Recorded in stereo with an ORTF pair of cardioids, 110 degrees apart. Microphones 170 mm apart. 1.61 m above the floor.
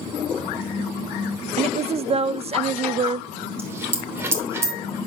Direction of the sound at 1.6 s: 40° right.